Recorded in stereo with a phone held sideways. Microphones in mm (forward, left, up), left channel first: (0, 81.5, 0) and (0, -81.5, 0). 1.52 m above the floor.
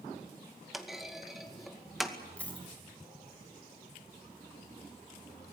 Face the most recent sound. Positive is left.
turn(degrees=5)  # may be behind; listen again after turning